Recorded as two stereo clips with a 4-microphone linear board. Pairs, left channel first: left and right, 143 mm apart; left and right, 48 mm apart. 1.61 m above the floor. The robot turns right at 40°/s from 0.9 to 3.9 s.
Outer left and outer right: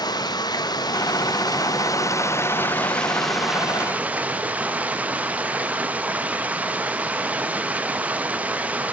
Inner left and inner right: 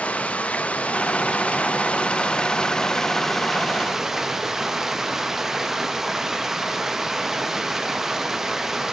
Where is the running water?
80° left, 0.9 m; by 8.9 s 160° right, 0.9 m.